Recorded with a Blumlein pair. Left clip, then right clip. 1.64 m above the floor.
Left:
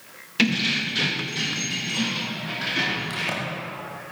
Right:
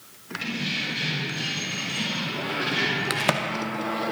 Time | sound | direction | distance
0.4 | keys jangling | 45° left | 1.7 m
3.1 | a crack | 30° right | 1.0 m